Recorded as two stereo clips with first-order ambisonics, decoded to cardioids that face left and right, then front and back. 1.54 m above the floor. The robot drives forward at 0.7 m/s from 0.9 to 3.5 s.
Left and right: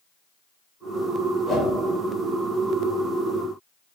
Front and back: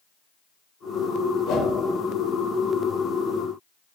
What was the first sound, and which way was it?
A whoosh, 10° left.